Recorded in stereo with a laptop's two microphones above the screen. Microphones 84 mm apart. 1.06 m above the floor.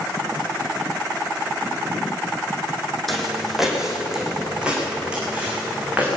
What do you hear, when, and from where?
3.1 s footsteps: centre (ahead or behind), 3.5 m; by 6.2 s 20° right (ahead or behind), 6 m